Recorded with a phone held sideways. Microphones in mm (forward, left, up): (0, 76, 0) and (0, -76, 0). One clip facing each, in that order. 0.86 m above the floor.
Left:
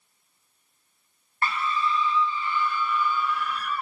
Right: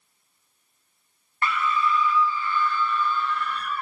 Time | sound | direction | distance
1.4 | a scream | 35° left (ahead or behind) | 0.8 m